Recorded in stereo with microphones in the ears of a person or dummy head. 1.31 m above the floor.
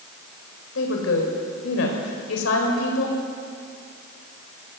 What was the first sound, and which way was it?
A woman speaking, 75° left (ahead or behind).